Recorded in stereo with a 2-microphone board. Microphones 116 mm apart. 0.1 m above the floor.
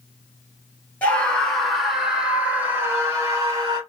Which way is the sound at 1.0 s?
10° left (ahead or behind).